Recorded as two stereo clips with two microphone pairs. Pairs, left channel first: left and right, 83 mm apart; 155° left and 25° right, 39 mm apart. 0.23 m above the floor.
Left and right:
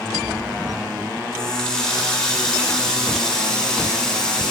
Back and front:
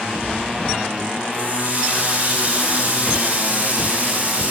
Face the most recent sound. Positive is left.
turn(degrees=10)